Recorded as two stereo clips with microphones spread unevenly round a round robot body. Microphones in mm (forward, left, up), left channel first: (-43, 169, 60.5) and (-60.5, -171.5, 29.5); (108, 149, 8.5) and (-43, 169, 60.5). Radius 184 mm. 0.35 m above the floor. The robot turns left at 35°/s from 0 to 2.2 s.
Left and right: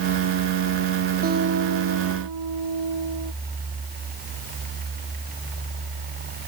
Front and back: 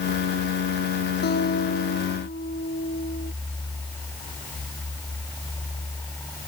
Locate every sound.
1.2 s a guitar: 25° right; by 3.3 s 60° right